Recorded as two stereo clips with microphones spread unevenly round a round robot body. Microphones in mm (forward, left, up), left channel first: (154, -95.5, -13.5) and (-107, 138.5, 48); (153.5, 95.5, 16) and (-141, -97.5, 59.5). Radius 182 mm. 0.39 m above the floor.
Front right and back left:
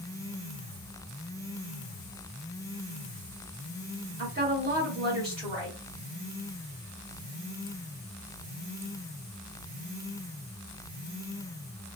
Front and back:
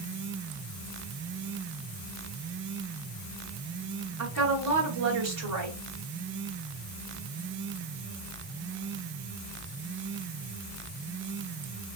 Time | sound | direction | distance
4.2 | a woman speaking | 155° right | 1.7 m